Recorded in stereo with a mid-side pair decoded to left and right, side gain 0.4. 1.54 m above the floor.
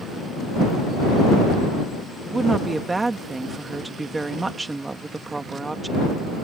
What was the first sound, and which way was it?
A woman speaking, 25° right.